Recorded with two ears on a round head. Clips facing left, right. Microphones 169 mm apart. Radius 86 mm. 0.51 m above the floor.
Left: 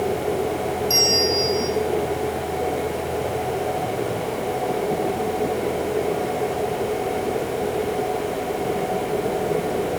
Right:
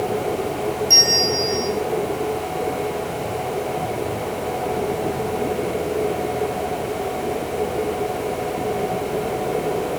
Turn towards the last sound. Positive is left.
turn(degrees=-5)  # may be behind; listen again after turning